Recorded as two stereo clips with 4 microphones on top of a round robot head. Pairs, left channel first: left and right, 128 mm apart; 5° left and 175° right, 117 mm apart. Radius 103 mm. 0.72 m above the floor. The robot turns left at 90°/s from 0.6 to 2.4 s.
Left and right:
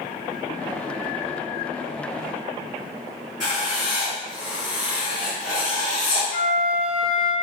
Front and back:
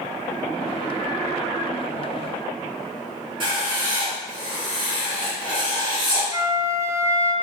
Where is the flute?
120° left, 0.5 m.